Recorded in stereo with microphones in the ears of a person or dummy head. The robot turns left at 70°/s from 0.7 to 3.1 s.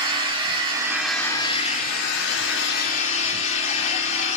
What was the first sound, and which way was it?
An engine running, 150° right.